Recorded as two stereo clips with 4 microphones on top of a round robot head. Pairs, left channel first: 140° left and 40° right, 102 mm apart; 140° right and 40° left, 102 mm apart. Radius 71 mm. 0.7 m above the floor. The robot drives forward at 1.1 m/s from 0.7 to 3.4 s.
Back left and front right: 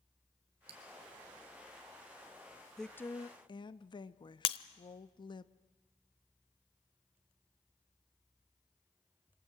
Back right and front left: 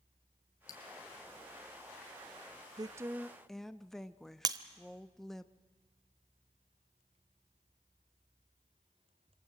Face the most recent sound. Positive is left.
turn(degrees=100)